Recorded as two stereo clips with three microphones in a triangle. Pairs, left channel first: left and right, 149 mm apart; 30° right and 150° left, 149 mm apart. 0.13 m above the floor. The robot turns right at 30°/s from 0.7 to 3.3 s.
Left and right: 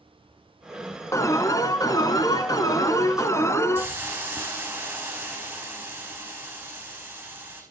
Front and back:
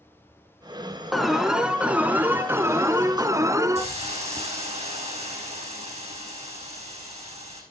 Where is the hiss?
165° right, 4.5 m.